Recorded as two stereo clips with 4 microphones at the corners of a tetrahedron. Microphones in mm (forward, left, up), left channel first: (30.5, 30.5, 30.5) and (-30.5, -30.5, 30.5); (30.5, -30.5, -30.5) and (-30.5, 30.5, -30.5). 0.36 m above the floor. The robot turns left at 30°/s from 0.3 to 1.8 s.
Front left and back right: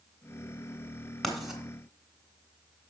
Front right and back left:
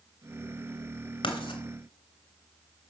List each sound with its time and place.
1.2 s writing: 45° right, 2.5 m; by 1.6 s 55° right, 2.5 m